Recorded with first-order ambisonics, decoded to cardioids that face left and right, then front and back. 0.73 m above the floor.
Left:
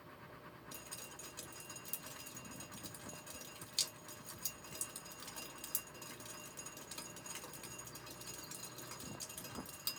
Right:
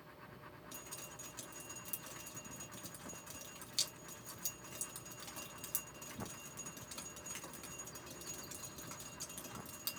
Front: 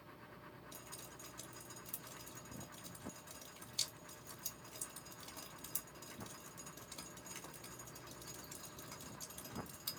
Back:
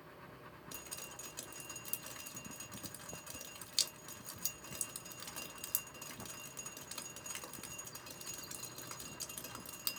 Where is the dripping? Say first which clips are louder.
Even, back 7 dB; 175° right, 1.3 m.